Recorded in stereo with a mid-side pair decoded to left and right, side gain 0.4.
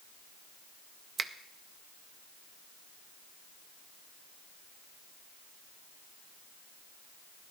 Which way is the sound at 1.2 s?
45° right.